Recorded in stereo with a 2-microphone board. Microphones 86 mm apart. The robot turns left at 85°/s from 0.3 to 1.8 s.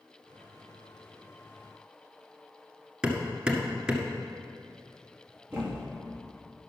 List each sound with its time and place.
3.0 s hammering: 10° right (ahead or behind), 1.5 m
5.5 s a thud: 10° right (ahead or behind), 2.5 m